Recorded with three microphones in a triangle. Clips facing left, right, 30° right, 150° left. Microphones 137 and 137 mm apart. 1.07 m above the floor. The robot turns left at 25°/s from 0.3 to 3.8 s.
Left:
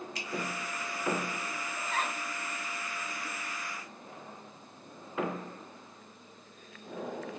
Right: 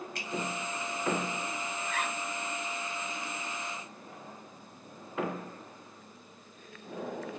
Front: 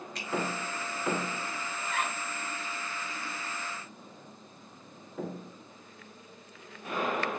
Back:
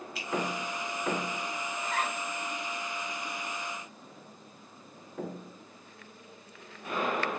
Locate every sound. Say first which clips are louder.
0.1 s a finger snap: even, even; 125° right, 0.9 m
1.8 s a zipper: left 2 dB, back 1 dB; 125° left, 0.7 m; by 2.2 s 115° left, 0.7 m